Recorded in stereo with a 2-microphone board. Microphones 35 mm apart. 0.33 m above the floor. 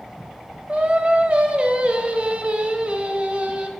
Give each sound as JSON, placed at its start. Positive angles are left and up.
{"t": 0.7, "sound": "singing", "side_deg": -40, "distance_m": 1.0}